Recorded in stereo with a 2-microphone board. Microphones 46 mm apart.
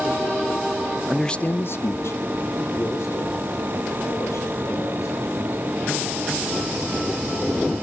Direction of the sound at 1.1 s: 15° right (ahead or behind).